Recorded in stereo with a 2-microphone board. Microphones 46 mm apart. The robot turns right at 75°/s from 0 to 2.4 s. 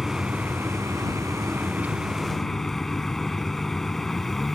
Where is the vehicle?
170° right; by 4.6 s 10° left.